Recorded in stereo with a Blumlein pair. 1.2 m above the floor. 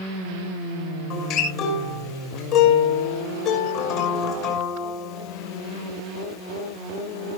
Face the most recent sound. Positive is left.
turn(degrees=40)